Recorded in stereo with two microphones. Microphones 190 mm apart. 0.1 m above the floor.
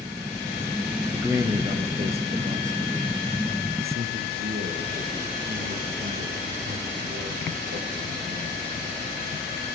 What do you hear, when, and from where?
1.1 s a man speaking: 10° right (ahead or behind), 1.5 m; by 8.6 s 75° right (ahead or behind), 6 m